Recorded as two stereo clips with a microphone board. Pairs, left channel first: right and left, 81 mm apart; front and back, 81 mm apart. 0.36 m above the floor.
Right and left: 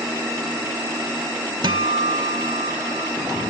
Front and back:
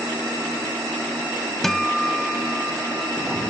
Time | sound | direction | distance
1.6 | a guitar | 85° left | ?